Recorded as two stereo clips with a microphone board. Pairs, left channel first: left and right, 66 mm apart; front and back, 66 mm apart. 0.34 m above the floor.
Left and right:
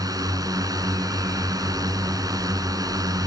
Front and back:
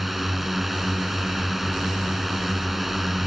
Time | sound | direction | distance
0.0 | a drone | 90° right | ?